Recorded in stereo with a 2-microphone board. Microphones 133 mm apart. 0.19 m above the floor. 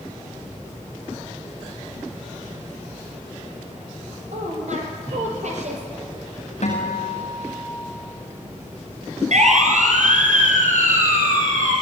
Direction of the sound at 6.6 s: 55° left (ahead or behind).